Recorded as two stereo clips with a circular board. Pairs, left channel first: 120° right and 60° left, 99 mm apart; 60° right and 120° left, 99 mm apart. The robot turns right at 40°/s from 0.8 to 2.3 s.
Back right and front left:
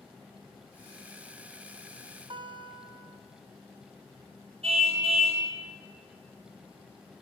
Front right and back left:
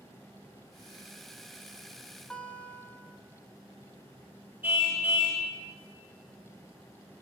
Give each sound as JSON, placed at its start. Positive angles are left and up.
{"t": 2.3, "sound": "a guitar", "azimuth_deg": 20, "distance_m": 1.1}
{"t": 4.6, "sound": "a car horn", "azimuth_deg": 50, "distance_m": 4.0}